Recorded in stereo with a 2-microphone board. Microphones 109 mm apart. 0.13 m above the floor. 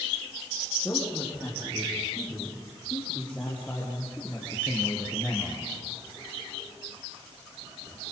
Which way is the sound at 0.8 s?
15° left (ahead or behind).